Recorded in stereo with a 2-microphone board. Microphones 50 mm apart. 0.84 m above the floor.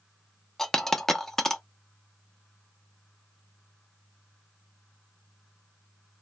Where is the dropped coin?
10° left (ahead or behind), 0.6 m.